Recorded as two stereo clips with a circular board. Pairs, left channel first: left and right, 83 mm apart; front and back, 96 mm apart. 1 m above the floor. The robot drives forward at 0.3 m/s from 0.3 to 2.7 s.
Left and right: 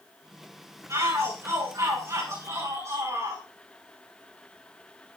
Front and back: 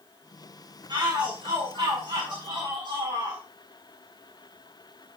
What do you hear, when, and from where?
0.9 s a shout: 135° right, 6.5 m; by 3.4 s 140° right, 7 m